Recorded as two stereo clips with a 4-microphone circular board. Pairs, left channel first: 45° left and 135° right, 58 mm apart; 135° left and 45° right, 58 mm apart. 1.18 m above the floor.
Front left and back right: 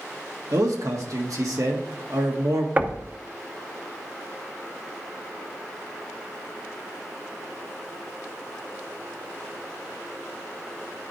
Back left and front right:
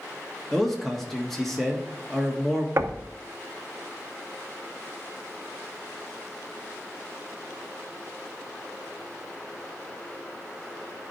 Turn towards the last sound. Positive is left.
turn(degrees=-75)